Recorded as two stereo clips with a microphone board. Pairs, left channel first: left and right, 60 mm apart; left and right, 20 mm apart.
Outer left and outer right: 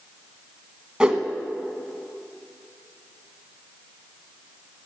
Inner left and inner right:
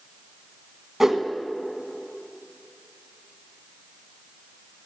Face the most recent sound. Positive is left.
turn(degrees=-15)  # may be behind; listen again after turning